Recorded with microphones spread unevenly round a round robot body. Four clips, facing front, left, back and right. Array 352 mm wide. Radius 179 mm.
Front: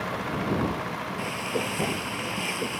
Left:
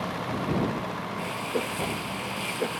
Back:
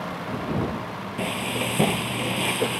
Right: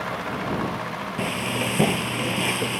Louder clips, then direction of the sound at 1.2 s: Right 4 dB, back 4 dB; 125° right.